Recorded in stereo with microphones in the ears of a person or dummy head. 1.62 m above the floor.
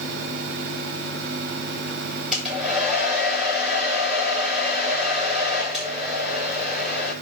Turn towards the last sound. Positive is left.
turn(degrees=0)  # may be behind; listen again after turning